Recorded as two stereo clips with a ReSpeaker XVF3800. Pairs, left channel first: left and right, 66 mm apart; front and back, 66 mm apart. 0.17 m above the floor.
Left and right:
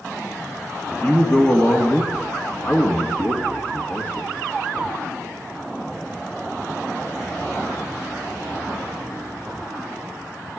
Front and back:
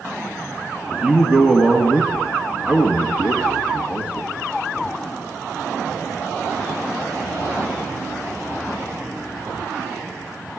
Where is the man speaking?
120° left, 1.8 m.